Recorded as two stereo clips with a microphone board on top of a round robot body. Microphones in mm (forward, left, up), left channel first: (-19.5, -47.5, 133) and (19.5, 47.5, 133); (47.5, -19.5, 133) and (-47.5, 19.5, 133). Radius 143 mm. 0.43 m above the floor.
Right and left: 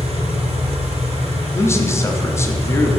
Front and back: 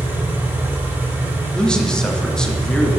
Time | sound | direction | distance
0.0 | an engine running | 85° left | 1.3 m
1.5 | a man speaking | 100° right | 1.0 m